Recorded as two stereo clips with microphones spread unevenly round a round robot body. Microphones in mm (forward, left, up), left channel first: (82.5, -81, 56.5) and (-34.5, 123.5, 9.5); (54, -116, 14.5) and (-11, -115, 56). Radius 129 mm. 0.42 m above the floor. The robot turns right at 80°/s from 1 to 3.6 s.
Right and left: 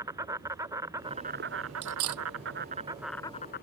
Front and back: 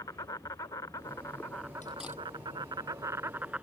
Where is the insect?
45° left; by 3.6 s 110° right.